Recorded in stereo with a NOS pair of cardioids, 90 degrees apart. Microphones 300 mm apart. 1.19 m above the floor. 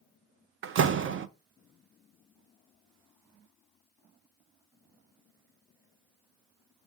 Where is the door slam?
45° right, 0.5 m.